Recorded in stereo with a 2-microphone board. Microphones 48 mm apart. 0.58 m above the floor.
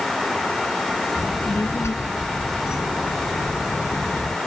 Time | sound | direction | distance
1.2 | a child speaking | 70° left (ahead or behind) | ?